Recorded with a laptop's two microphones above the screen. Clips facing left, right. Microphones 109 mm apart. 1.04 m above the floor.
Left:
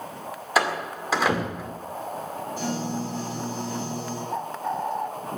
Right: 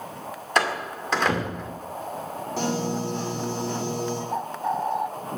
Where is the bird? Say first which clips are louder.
Even; 10° right (ahead or behind), 0.9 m.